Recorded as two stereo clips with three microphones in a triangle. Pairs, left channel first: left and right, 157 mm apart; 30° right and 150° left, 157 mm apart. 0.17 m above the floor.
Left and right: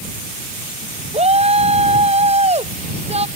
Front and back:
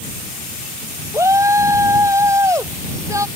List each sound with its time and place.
1.1 s a shout: 140° right